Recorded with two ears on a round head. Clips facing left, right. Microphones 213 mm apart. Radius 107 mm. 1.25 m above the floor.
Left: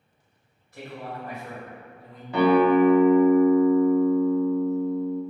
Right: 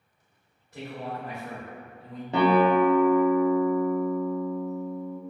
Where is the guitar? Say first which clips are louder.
Left 3 dB; 20° right (ahead or behind), 0.6 m.